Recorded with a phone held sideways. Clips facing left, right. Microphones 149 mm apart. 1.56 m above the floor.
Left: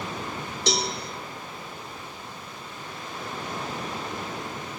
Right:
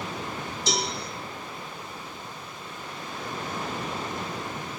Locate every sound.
0.7 s a cowbell: 70° left (ahead or behind), 1.6 m